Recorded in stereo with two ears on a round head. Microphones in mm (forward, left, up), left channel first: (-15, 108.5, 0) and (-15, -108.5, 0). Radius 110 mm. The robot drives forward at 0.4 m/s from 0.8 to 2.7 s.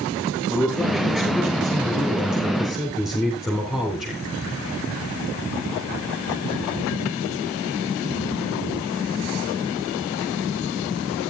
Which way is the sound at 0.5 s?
Centre (ahead or behind).